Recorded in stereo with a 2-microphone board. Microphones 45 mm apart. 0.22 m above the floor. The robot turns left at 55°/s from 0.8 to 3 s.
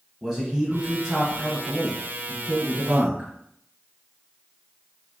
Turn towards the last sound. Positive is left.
turn(degrees=-130)